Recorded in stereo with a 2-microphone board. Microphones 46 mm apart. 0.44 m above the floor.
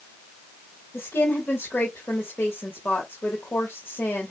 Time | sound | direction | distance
0.9 | a woman speaking | 60° left (ahead or behind) | 1.7 m